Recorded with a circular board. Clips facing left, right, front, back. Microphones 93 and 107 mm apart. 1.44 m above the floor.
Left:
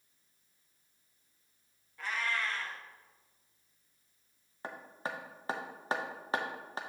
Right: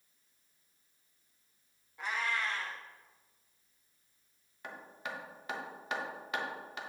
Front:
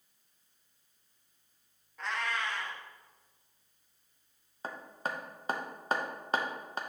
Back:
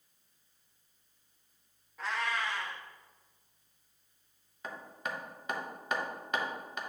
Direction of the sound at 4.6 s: 45° left.